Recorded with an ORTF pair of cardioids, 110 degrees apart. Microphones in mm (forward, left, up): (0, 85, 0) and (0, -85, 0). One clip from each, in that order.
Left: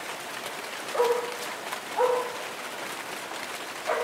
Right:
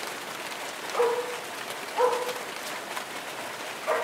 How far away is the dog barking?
About 2.5 m.